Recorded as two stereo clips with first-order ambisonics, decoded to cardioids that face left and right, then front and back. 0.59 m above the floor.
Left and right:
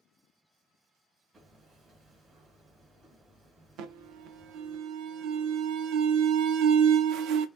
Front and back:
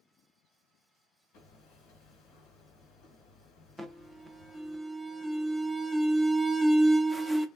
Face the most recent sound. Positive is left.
turn(degrees=-90)